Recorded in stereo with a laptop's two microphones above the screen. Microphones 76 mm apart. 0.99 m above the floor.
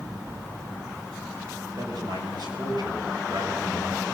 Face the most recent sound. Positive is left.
turn(degrees=-60)  # may be behind; listen again after turning